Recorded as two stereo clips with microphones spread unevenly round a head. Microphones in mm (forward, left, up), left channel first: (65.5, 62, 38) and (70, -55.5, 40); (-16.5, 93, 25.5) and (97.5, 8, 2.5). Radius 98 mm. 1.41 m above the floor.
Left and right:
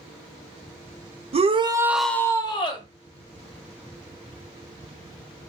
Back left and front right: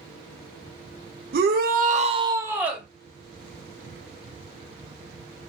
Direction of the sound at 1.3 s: 50° right.